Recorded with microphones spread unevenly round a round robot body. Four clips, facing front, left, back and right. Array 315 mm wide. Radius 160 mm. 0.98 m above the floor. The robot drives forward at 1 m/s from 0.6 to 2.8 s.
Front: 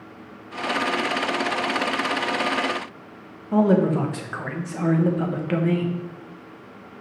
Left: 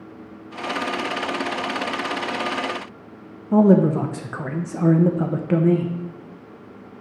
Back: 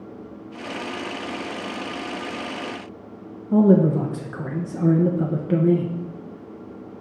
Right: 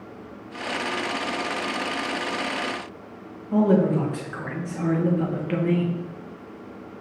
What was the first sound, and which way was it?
A man speaking, 140° left.